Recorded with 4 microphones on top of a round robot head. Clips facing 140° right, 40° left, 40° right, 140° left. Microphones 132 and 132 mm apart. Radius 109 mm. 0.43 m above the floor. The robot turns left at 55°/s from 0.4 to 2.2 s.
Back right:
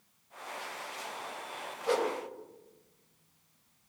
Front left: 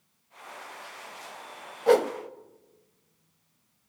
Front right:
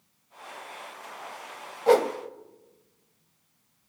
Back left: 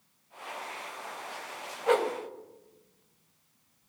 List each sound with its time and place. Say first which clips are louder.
1.9 s a whoosh: front left 9 dB, front right 6 dB; 15° left, 1.0 m; by 2.1 s straight ahead, 1.0 m